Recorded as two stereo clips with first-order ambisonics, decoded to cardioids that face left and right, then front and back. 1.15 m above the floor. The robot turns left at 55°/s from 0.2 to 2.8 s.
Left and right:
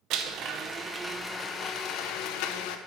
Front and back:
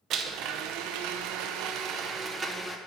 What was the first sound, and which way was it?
A blender, 130° right.